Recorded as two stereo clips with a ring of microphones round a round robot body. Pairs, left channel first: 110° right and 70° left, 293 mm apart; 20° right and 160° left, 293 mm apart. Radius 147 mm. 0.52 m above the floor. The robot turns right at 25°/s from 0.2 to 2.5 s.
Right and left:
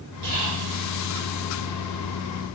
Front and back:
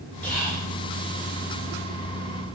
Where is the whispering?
65° left, 1.4 m; by 0.7 s 75° left, 1.4 m.